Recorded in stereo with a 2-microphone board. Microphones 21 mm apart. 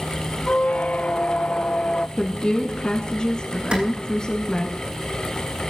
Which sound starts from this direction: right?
A clap, at 3.7 s.